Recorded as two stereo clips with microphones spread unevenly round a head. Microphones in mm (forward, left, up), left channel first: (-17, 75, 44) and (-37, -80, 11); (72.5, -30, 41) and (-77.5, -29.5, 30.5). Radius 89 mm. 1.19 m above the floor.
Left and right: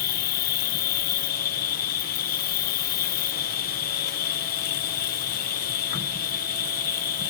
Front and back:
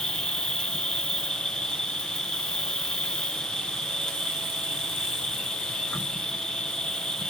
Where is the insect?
85° left.